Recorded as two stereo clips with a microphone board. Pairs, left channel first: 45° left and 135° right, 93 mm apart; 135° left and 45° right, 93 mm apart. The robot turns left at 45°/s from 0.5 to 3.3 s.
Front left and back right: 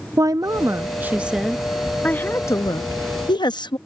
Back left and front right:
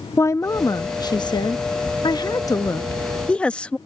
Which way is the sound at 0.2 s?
175° right.